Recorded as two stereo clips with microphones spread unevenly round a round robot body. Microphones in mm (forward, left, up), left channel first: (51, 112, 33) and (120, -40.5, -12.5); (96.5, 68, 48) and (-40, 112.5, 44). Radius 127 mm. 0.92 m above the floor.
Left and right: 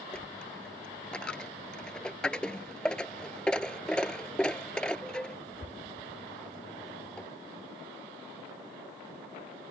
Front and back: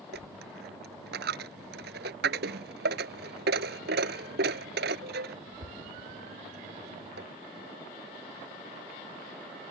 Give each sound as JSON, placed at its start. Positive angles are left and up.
{"t": 0.1, "sound": "a dropped coin", "azimuth_deg": -165}